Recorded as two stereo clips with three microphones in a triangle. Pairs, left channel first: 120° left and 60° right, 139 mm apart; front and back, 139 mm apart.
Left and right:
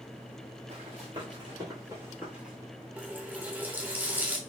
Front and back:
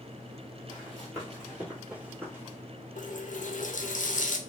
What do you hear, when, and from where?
0.7 s running footsteps: 85° right, 1.6 m; by 2.5 s 135° right, 1.2 m
3.0 s a running tap: 15° left, 0.5 m